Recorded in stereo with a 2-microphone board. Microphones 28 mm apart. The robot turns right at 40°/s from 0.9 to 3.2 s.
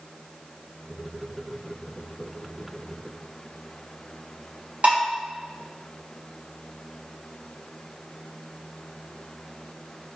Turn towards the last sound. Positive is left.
turn(degrees=-50)  # may be behind; listen again after turning